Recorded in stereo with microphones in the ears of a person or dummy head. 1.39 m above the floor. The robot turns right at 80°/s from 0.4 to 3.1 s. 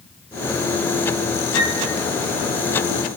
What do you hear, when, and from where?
1.5 s a flute: 15° left (ahead or behind), 2.5 m; by 1.8 s centre (ahead or behind), 2.5 m